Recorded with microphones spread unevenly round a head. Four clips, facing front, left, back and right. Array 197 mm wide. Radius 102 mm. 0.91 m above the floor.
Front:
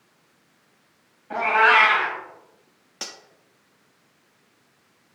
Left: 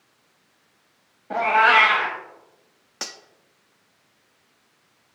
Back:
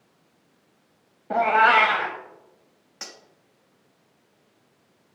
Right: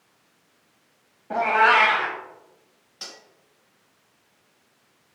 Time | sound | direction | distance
1.3 | a cat meowing | 175° left | 1.0 m
3.0 | cutlery clinking | 65° left | 0.8 m